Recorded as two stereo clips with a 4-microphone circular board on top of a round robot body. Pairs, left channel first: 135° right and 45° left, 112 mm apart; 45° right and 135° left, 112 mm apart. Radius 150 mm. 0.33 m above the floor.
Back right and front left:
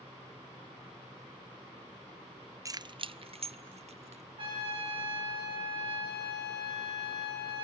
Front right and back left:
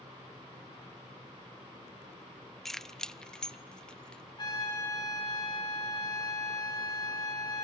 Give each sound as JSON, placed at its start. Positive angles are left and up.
{"t": 2.6, "sound": "keys jangling", "azimuth_deg": 40, "distance_m": 0.5}
{"t": 4.4, "sound": "a trumpet", "azimuth_deg": 5, "distance_m": 7.0}